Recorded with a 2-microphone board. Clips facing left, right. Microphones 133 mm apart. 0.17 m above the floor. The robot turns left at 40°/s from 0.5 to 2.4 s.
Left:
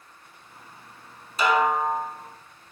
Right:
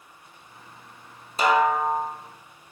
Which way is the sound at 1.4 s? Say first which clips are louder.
Right 1 dB; 35° right (ahead or behind).